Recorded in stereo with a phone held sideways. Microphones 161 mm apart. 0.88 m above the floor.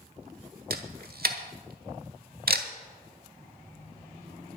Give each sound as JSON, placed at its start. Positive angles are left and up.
{"t": 0.7, "sound": "a camera shutter", "side_deg": -70, "distance_m": 1.3}